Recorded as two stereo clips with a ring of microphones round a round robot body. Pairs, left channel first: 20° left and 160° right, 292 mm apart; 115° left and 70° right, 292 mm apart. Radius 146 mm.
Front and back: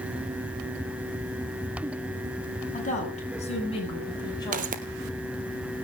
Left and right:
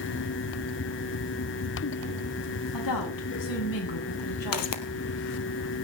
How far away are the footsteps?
About 1.7 m.